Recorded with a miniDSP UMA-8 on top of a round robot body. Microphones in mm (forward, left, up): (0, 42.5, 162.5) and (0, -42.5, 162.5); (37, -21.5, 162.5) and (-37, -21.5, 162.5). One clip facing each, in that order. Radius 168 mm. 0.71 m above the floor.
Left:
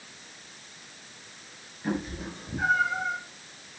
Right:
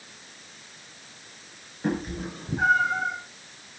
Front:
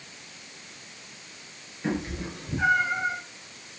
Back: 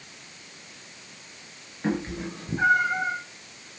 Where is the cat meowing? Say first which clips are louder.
Right 3 dB, back 2 dB; 130° right, 6 m; by 3.1 s 135° right, 5.5 m.